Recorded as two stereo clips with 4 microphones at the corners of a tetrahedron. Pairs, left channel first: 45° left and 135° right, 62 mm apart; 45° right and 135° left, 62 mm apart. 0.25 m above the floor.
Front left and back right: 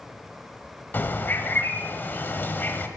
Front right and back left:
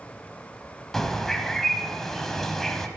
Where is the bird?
35° left, 1.0 m.